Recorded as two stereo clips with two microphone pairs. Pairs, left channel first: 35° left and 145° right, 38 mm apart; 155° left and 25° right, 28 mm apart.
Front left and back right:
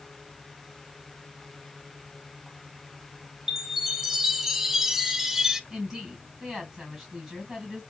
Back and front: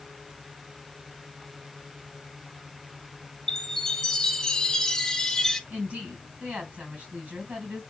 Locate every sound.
3.5 s a chime: 165° left, 0.7 m
5.7 s a woman speaking: 60° right, 3.5 m